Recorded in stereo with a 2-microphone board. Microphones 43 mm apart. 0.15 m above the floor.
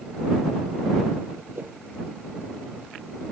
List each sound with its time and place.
1.6 s a whoosh: 50° right (ahead or behind)